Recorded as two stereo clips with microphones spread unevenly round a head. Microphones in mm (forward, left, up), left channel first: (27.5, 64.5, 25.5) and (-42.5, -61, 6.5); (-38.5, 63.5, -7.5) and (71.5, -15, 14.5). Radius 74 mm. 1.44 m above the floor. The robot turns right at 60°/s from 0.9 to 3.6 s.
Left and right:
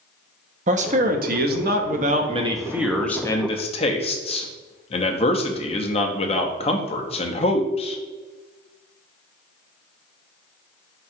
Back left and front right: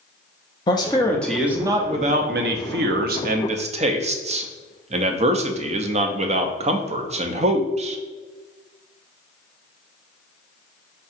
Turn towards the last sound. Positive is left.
turn(degrees=10)